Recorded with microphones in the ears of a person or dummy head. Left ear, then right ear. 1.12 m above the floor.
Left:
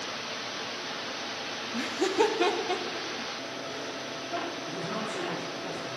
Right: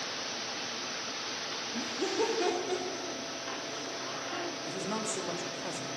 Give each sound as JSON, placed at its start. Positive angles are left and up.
{"t": 1.7, "sound": "laughter", "side_deg": 55, "distance_m": 0.9}
{"t": 4.6, "sound": "a woman speaking", "side_deg": -65, "distance_m": 2.0}